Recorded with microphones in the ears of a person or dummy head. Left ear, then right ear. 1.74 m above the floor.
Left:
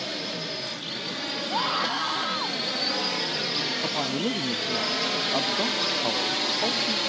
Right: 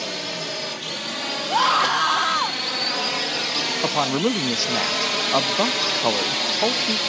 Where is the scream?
45° right (ahead or behind).